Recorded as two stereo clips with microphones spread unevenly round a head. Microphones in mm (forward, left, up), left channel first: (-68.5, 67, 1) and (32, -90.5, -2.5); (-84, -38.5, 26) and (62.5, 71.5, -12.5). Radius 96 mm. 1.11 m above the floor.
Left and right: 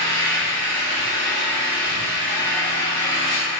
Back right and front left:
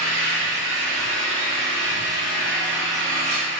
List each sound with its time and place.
0.0 s an engine running: 45° left, 2.0 m